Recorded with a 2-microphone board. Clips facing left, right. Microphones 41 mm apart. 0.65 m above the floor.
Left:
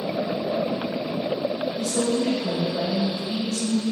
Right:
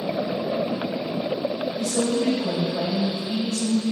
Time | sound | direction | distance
1.8 | a woman speaking | 5° right (ahead or behind) | 3 m